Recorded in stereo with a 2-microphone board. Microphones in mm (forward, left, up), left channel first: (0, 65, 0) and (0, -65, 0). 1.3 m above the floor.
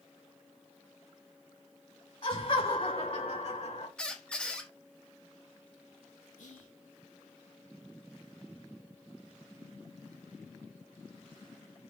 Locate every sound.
2.2 s laughter: 45° left (ahead or behind), 2 m; by 3.9 s 55° left (ahead or behind), 1.0 m
4.0 s a squeak: 5° left (ahead or behind), 0.8 m
6.4 s whispering: 75° left (ahead or behind), 1.3 m